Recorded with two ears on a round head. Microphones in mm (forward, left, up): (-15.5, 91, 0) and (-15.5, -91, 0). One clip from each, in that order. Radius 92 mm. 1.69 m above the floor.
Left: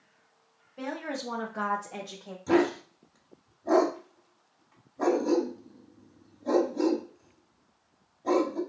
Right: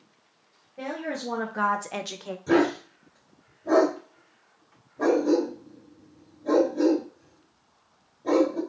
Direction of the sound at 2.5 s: 15° left (ahead or behind).